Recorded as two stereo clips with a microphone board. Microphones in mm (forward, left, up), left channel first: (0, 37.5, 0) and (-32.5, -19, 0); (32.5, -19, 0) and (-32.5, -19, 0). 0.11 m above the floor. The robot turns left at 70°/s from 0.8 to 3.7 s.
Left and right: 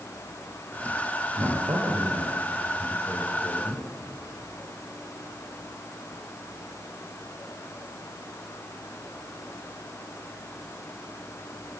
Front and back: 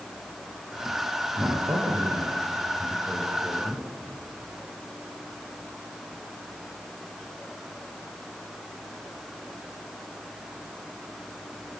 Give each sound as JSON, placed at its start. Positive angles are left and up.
{"t": 1.4, "sound": "a man speaking", "azimuth_deg": -120, "distance_m": 5.5}